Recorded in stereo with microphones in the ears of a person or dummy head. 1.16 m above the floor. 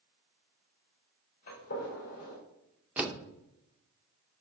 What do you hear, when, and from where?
1.5 s a gunshot: 50° left (ahead or behind), 3.5 m
3.0 s a door slam: 5° right (ahead or behind), 0.5 m